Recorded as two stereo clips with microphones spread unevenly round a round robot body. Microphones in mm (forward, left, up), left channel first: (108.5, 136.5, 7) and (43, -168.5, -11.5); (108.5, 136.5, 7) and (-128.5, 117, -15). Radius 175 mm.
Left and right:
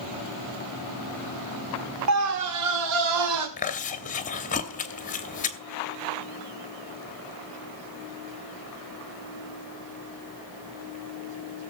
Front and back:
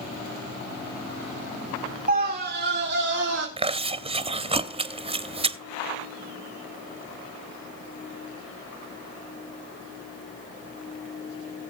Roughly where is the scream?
Behind right.